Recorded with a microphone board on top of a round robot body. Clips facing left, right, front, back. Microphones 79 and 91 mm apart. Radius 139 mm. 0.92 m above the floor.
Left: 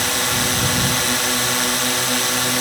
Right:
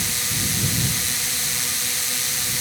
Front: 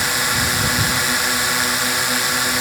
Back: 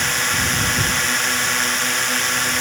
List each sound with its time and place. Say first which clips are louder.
0.0 s a drone: left 9 dB, front 1 dB; 80° left